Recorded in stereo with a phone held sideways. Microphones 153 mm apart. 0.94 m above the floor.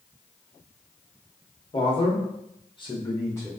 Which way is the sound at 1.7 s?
35° left (ahead or behind).